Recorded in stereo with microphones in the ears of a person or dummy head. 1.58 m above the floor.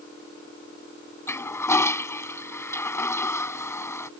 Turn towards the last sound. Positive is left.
turn(degrees=15)  # may be behind; listen again after turning